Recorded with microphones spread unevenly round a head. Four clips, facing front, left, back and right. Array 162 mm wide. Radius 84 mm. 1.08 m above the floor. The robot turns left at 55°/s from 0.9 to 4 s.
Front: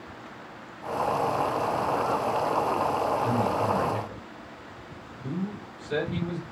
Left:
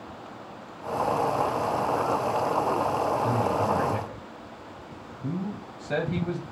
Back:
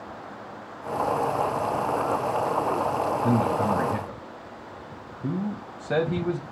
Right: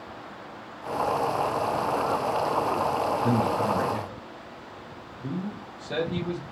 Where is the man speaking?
145° right, 0.9 m; by 6.4 s 175° left, 0.9 m.